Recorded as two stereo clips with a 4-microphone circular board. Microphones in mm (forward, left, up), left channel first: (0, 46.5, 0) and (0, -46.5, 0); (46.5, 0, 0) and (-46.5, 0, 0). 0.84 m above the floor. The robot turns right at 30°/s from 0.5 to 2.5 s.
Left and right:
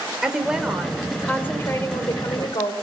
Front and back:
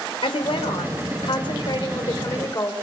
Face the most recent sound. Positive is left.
turn(degrees=55)